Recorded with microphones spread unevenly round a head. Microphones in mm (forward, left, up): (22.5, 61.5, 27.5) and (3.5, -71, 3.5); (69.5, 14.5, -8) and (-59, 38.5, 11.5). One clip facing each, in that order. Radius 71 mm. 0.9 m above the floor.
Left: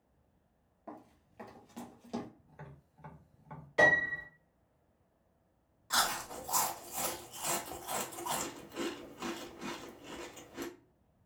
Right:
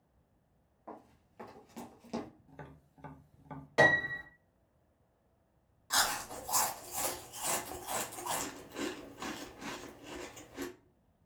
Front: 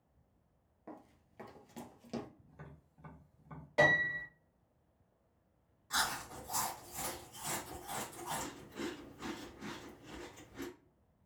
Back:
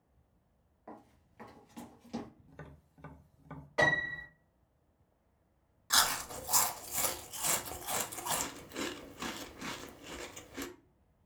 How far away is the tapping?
About 0.6 m.